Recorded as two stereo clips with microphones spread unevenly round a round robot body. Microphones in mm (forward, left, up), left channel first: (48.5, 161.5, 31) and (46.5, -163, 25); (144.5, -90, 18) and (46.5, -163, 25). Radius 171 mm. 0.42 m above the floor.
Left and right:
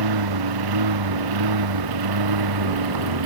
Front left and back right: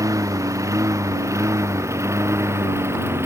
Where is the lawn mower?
80° right; by 3.3 s 75° right.